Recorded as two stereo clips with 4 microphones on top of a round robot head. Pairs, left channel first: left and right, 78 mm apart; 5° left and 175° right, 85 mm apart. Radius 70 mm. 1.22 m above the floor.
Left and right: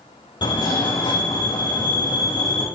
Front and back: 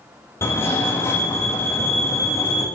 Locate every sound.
0.4 s a fire alarm: 65° left, 4 m